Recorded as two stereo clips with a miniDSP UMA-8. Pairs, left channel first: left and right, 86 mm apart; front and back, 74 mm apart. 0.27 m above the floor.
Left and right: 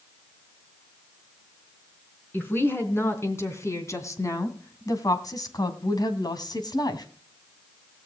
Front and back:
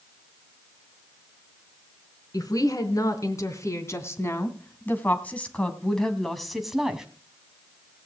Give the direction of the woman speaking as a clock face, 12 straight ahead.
11 o'clock.